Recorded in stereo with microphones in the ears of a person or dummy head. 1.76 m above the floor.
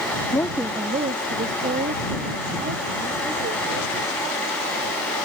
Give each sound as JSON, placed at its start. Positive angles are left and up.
{"t": 0.3, "sound": "a woman speaking", "side_deg": 15}